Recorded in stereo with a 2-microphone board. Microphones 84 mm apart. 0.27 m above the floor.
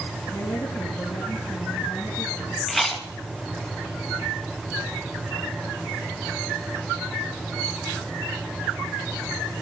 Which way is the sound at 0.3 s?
35° left (ahead or behind).